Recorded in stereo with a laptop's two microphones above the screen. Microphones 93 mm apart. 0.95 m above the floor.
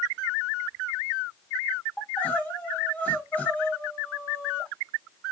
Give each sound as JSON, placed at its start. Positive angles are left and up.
{"t": 2.0, "sound": "crying", "side_deg": 20, "distance_m": 0.8}